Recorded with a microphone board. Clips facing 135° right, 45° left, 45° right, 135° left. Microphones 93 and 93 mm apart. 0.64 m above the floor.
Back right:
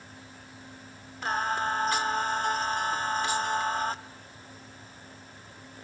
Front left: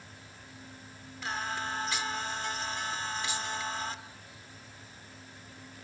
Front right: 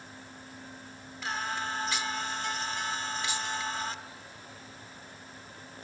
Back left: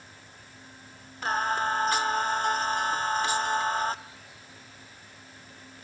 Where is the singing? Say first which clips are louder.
Back right 7 dB, back left 7 dB; straight behind, 1.0 m.